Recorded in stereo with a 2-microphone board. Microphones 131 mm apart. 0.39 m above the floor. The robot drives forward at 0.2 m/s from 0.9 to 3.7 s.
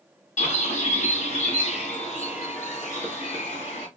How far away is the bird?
About 1.7 m.